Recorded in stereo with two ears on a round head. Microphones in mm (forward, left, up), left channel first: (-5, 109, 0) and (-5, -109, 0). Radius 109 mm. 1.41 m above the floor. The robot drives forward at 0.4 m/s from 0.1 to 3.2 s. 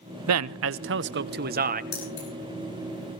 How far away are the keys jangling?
About 10 m.